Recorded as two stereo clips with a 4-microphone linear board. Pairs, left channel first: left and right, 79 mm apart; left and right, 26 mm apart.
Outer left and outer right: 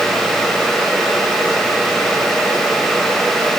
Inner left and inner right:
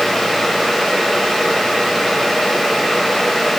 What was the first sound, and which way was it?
Only background noise.